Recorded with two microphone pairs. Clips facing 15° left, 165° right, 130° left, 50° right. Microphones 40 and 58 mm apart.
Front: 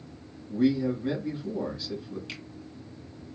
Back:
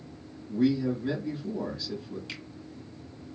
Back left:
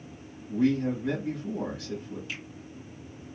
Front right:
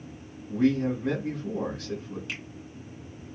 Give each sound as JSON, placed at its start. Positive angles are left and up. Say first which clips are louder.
{"t": 0.5, "sound": "a man speaking", "louder": "front 1 dB, front right 1 dB", "azimuth_deg": -70, "distance_m": 1.8}
{"t": 2.3, "sound": "a finger snap", "louder": "even, front right 2 dB", "azimuth_deg": -65, "distance_m": 2.0}